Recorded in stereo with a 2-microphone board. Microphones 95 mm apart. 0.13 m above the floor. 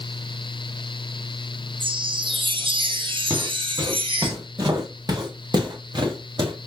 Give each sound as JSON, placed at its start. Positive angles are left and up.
{"t": 1.8, "sound": "a chime", "side_deg": -65, "distance_m": 2.0}
{"t": 3.3, "sound": "footsteps", "side_deg": -35, "distance_m": 4.5}